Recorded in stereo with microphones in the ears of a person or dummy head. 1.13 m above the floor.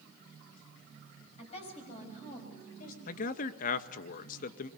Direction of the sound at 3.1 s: 50° left (ahead or behind).